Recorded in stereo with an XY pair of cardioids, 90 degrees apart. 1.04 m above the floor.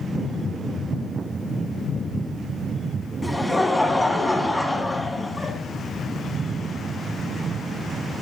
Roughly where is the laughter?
Ahead.